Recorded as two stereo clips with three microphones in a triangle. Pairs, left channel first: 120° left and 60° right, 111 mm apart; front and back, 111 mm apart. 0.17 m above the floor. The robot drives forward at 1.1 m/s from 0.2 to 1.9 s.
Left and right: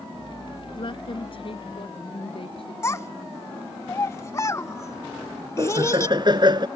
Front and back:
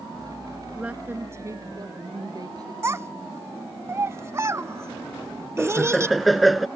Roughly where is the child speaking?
Behind left.